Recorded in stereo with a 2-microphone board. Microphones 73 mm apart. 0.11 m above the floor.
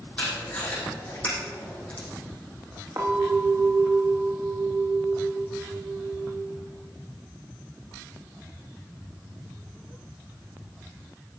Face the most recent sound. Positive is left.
turn(degrees=-65)  # may be behind; listen again after turning